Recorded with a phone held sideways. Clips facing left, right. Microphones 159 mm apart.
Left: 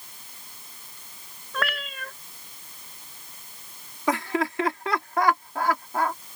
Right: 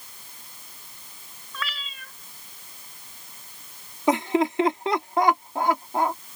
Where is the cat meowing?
60° left (ahead or behind).